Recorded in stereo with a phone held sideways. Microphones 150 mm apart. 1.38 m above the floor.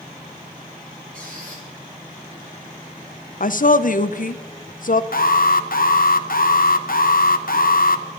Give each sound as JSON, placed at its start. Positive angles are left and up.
{"t": 1.1, "sound": "a squeak", "side_deg": -70, "distance_m": 9.5}
{"t": 3.4, "sound": "a woman speaking", "side_deg": 65, "distance_m": 0.7}
{"t": 5.1, "sound": "an alarm", "side_deg": 70, "distance_m": 0.9}